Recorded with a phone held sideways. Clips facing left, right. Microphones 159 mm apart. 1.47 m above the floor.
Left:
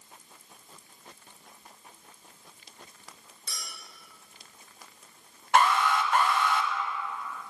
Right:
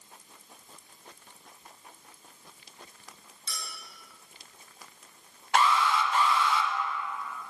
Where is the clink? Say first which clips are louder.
Right 2 dB; 45° left (ahead or behind), 3 m.